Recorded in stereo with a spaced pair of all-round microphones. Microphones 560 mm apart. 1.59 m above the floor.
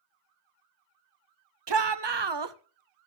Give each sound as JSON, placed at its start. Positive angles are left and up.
{"t": 1.7, "sound": "a shout", "side_deg": -50, "distance_m": 0.7}